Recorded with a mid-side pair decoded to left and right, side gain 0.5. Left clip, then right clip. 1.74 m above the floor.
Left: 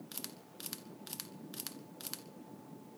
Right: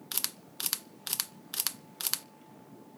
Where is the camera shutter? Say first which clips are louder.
Right 13 dB; 65° right, 0.5 m.